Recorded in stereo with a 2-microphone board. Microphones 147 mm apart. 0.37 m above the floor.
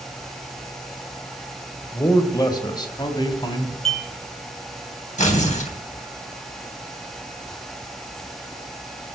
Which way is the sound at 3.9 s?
45° right (ahead or behind).